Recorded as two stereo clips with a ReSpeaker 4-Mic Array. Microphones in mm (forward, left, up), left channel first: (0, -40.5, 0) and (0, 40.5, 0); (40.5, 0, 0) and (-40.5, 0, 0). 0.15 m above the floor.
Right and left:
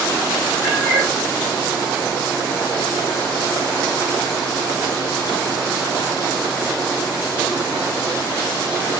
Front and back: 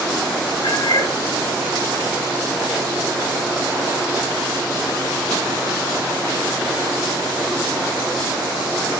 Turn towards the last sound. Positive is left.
turn(degrees=10)